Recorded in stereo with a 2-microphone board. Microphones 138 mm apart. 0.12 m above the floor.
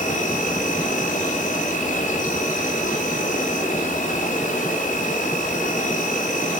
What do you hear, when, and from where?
0.0 s an insect: 65° left (ahead or behind), 2.5 m